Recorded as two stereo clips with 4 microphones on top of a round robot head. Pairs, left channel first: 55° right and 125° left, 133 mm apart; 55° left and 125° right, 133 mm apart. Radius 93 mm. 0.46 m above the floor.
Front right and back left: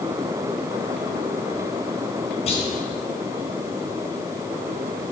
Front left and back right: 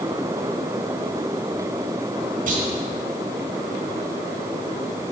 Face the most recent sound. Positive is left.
turn(degrees=-100)